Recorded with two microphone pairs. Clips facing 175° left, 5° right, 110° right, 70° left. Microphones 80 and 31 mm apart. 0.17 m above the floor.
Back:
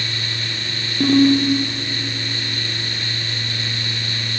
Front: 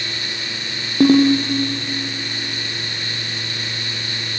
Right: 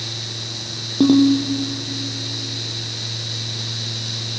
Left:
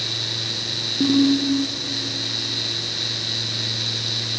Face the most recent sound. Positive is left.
turn(degrees=-55)